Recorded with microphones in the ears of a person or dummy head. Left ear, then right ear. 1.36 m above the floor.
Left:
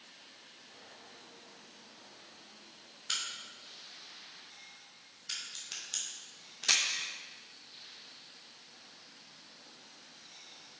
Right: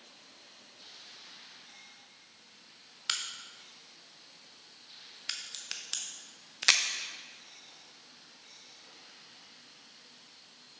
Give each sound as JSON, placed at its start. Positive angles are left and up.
{"t": 3.1, "sound": "a crack", "side_deg": -40, "distance_m": 0.6}